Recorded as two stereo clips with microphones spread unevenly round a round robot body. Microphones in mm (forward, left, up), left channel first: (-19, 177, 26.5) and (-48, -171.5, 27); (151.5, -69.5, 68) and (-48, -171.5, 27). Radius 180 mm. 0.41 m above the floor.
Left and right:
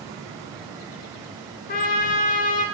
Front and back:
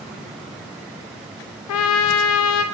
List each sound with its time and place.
1.7 s a trumpet: 20° left, 0.5 m